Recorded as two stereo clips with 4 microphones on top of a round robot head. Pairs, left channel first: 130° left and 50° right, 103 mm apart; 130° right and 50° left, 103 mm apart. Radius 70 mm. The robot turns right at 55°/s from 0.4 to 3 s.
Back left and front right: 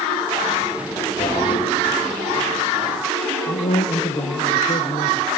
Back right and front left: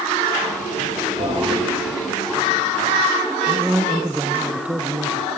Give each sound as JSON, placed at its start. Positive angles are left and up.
{"t": 1.2, "sound": "a toilet flushing", "azimuth_deg": 70, "distance_m": 5.5}
{"t": 3.5, "sound": "a man speaking", "azimuth_deg": 125, "distance_m": 1.2}